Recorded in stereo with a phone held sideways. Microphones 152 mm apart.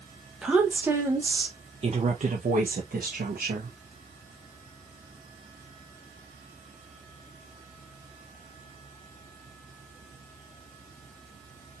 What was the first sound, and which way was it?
A woman speaking, 5° right (ahead or behind).